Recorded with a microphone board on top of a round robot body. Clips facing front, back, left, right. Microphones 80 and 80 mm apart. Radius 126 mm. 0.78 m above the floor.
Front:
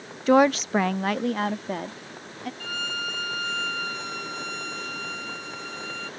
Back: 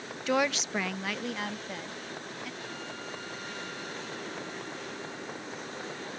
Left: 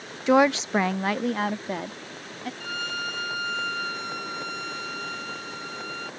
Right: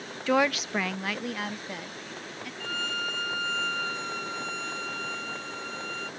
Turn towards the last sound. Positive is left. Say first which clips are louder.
# front 8 dB, right 1 dB
turn(degrees=10)